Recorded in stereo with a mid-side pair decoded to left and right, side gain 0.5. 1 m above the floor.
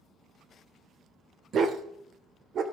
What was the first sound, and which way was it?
A dog barking, 50° right.